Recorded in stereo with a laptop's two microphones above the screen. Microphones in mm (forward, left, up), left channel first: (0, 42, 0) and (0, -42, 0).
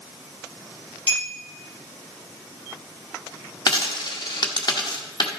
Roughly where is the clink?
Right.